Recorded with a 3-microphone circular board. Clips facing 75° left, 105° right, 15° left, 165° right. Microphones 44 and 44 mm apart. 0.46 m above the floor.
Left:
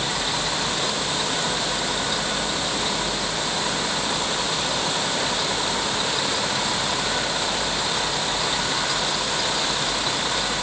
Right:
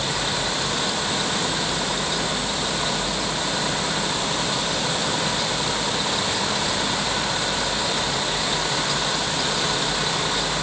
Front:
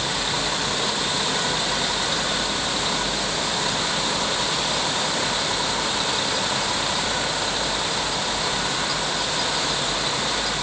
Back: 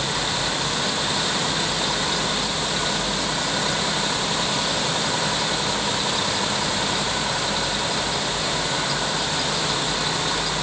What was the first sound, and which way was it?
Only background noise.